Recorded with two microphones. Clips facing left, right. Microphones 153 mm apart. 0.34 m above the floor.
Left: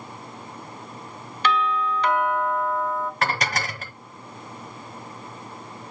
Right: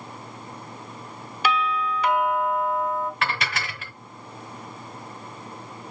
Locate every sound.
1.4 s a doorbell: 10° right (ahead or behind), 1.8 m
3.2 s dishes clattering: 35° left (ahead or behind), 0.7 m